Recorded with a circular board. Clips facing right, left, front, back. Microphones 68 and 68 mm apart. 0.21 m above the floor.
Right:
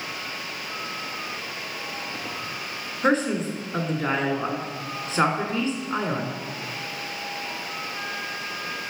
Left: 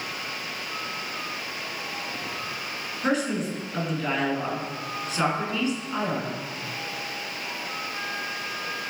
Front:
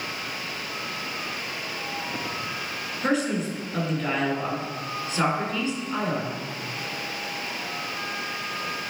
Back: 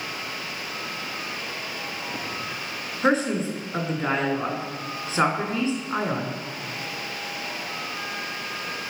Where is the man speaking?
135° right, 1.8 m.